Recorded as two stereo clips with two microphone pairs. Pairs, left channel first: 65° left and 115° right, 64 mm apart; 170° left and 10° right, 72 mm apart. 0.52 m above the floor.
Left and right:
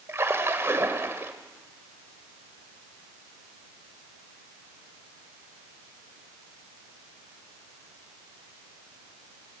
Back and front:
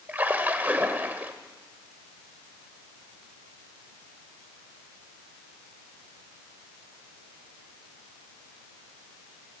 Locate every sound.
0.1 s a splash: 70° right, 1.7 m